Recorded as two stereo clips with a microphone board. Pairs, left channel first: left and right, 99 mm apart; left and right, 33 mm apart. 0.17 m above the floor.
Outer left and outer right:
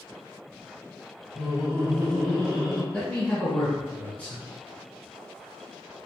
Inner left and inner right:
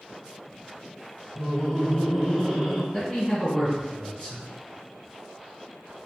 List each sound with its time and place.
1.4 s laughter: 25° left (ahead or behind), 1.7 m; by 2.8 s 15° right (ahead or behind), 1.6 m
2.9 s a man speaking: 20° left (ahead or behind), 1.4 m